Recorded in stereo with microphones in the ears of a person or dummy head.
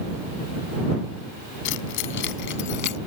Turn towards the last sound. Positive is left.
turn(degrees=60)  # may be behind; listen again after turning